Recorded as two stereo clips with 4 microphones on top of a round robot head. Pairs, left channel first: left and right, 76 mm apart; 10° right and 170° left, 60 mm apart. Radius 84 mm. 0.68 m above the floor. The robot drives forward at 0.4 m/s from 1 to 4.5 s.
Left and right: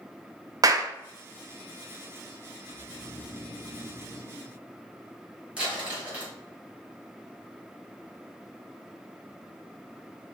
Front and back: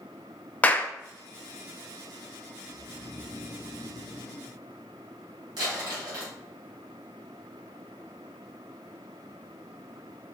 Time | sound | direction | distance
0.6 | a clap | 70° right | 0.6 m
2.7 | snoring | 20° left | 1.8 m
5.6 | crumpling | 165° right | 2.5 m